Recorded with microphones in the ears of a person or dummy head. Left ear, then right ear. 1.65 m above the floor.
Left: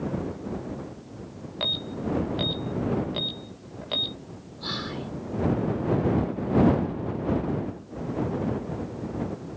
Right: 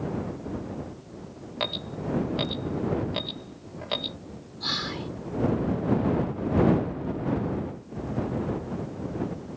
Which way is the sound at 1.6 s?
75° right (ahead or behind).